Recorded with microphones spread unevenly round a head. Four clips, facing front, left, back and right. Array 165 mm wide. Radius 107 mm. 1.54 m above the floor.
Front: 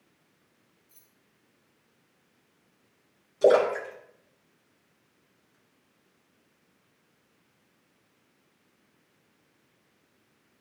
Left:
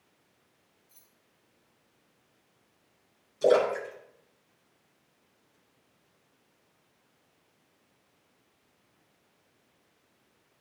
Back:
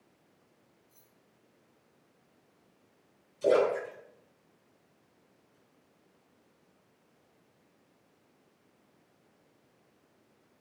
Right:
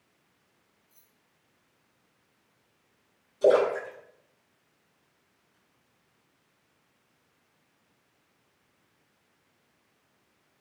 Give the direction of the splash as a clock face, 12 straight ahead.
12 o'clock.